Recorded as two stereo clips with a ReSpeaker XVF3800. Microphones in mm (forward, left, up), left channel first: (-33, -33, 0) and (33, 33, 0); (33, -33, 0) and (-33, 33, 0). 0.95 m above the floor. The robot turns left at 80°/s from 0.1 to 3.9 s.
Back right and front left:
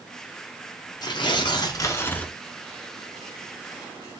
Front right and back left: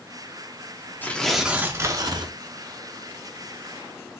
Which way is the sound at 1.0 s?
110° right.